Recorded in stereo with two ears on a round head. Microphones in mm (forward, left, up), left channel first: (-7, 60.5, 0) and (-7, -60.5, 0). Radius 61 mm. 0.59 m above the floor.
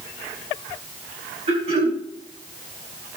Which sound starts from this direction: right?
Throat clearing, at 1.5 s.